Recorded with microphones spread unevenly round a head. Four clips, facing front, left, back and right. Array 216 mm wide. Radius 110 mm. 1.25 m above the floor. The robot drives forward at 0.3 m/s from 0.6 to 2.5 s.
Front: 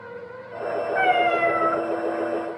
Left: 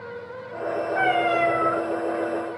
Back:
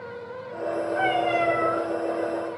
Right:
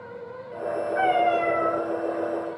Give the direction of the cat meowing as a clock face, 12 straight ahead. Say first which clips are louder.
Right 1 dB, front 4 dB; 11 o'clock.